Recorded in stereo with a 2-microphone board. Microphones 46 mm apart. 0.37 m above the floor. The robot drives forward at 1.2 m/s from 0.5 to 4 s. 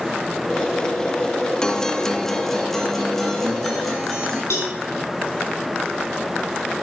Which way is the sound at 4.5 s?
70° left (ahead or behind).